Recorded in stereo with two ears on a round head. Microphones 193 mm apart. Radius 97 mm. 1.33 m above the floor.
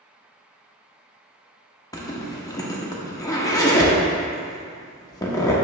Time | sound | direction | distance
1.9 | a zipper | 15° left (ahead or behind) | 0.9 m